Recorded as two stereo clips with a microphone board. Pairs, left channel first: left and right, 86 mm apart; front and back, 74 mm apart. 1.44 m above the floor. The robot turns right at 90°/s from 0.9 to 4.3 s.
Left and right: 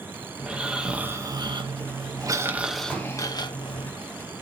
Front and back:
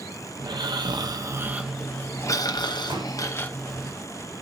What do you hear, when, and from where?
0.4 s snoring: 170° right, 0.9 m; by 3.9 s 100° left, 0.9 m
2.9 s a pop: 170° right, 3.5 m; by 3.1 s 145° right, 3.5 m